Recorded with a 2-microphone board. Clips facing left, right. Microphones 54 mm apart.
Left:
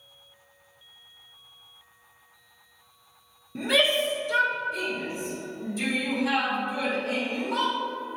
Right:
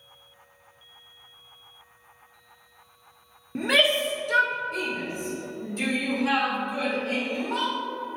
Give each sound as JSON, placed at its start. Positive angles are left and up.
{"t": 3.5, "sound": "a shout", "side_deg": -50, "distance_m": 1.0}